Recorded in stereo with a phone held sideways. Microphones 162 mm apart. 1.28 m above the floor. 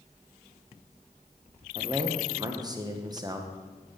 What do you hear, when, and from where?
1.8 s a man speaking: 25° right (ahead or behind), 1.2 m